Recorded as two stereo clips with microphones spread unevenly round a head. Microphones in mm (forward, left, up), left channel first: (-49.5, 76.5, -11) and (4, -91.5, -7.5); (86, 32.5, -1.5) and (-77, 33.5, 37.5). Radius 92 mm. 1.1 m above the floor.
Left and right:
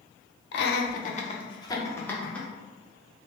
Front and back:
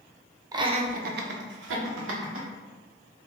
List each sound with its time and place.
0.5 s laughter: 105° left, 0.5 m; by 2.5 s 170° right, 1.0 m